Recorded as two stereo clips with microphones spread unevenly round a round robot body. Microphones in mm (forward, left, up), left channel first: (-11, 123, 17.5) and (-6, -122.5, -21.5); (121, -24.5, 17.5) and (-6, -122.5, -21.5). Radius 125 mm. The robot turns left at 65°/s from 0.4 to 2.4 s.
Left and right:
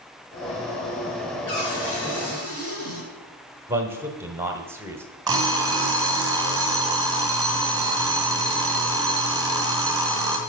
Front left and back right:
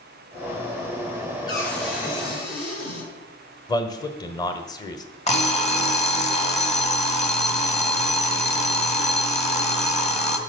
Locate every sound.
1.5 s a cupboard door: 110° left, 5.5 m; by 3.1 s 50° left, 5.5 m
3.7 s a man speaking: 30° right, 1.1 m
5.3 s an alarm clock: 15° right, 2 m